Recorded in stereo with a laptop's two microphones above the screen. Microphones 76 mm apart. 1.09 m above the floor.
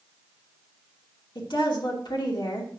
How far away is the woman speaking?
About 2.5 m.